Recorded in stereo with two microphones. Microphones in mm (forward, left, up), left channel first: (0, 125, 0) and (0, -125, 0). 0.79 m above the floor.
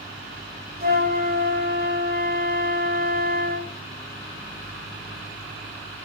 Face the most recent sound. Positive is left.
turn(degrees=-40)  # may be behind; listen again after turning